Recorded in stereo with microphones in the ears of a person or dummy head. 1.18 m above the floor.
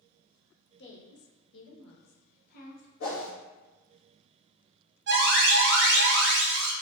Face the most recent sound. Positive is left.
turn(degrees=-60)  # may be behind; listen again after turning